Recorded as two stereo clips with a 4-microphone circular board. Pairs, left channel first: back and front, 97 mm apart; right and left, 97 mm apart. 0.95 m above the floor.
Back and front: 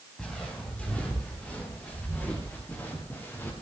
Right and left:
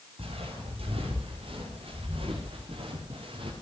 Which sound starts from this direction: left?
Footsteps, at 0.2 s.